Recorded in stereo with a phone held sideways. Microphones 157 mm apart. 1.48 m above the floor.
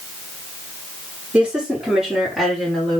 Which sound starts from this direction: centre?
A woman speaking, at 1.3 s.